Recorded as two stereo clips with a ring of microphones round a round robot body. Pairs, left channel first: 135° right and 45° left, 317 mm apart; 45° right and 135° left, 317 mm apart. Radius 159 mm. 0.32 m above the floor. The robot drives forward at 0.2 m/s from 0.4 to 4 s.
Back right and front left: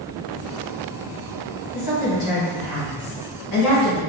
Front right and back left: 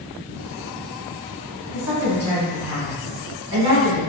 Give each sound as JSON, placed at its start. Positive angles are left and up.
{"t": 1.7, "sound": "a woman speaking", "azimuth_deg": 170, "distance_m": 1.9}